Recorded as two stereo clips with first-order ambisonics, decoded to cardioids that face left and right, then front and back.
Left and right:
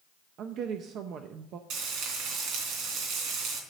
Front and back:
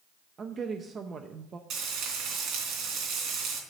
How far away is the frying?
About 3 m.